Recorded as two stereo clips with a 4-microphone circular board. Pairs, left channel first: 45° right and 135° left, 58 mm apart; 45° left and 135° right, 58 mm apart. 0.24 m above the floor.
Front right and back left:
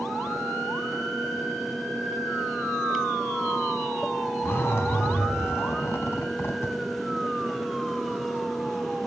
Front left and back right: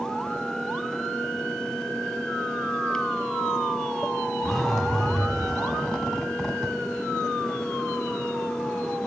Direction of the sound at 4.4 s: 30° right.